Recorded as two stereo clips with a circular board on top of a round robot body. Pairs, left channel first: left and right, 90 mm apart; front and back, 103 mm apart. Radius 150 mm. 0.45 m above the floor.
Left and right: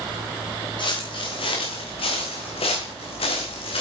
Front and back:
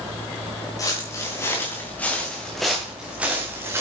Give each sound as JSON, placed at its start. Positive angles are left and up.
{"t": 0.8, "sound": "footsteps", "azimuth_deg": 60, "distance_m": 3.5}